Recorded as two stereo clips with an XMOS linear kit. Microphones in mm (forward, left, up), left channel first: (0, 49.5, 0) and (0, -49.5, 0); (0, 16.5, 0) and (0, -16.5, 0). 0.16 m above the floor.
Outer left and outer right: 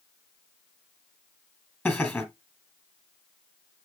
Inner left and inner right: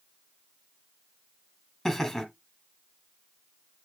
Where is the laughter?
15° left (ahead or behind), 1.5 m.